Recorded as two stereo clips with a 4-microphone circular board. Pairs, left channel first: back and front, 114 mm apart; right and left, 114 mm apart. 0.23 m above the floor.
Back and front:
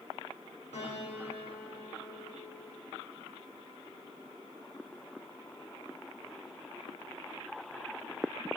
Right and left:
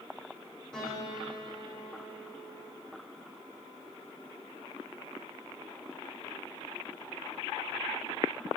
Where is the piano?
170° right, 8.5 m.